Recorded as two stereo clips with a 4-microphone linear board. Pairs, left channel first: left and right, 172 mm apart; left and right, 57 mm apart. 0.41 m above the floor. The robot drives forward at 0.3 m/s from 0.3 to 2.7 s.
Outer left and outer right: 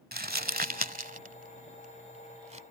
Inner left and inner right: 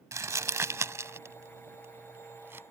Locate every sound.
0.1 s crumpling: 65° right (ahead or behind); by 2.6 s 45° right (ahead or behind)